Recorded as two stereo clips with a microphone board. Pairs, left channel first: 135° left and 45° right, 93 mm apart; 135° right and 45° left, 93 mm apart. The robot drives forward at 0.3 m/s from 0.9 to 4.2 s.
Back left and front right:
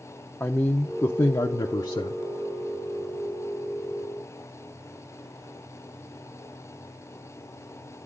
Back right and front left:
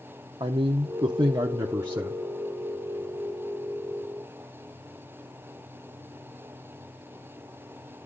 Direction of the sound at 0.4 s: 70° left.